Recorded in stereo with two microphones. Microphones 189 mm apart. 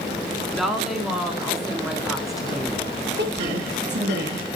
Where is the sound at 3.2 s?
65° right (ahead or behind), 2.5 m.